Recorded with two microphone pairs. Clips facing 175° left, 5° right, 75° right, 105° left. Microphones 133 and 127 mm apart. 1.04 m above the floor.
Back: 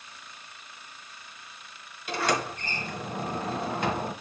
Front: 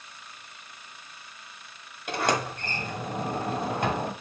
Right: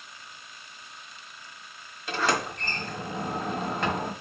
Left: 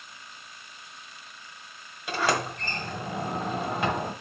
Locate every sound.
2.1 s a sliding door: 25° left, 1.6 m